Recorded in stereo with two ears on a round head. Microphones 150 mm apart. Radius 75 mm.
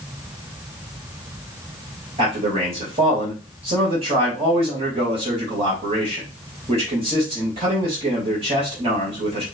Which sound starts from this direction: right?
A man speaking, at 2.2 s.